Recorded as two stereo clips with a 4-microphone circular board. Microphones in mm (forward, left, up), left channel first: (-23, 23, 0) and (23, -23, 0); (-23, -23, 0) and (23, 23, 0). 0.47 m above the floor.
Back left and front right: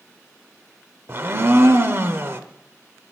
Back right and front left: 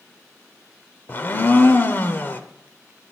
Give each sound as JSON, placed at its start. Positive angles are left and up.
{"t": 1.1, "sound": "a blender", "azimuth_deg": -85, "distance_m": 0.9}